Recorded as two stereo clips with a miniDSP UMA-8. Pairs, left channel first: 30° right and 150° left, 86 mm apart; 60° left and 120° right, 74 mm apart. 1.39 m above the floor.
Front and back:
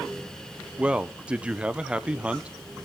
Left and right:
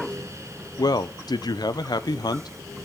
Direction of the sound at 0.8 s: 75° left.